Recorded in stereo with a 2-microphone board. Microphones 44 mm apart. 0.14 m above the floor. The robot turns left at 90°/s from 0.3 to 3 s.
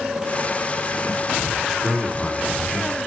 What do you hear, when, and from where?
1.7 s a man speaking: centre (ahead or behind), 1.4 m; by 3.0 s 15° left (ahead or behind), 1.4 m